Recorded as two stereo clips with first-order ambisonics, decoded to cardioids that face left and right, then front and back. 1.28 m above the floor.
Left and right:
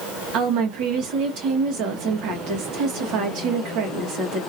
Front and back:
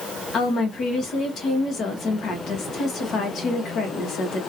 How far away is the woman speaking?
About 1.4 m.